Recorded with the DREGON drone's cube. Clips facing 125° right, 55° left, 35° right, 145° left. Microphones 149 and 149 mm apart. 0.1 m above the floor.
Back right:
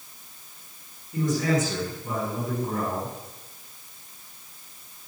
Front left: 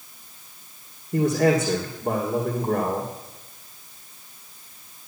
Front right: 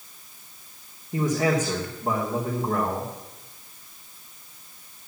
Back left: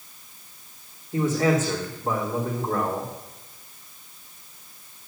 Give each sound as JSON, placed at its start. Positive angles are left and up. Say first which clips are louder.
{"t": 1.1, "sound": "a man speaking", "louder": "front left 5 dB, back left 1 dB", "azimuth_deg": 40, "distance_m": 3.5}